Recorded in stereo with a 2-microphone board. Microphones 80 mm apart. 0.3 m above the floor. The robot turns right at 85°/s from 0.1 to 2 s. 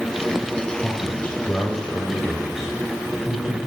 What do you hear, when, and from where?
0.8 s a man speaking: 25° left (ahead or behind), 1.5 m; by 3.6 s 5° right (ahead or behind), 1.5 m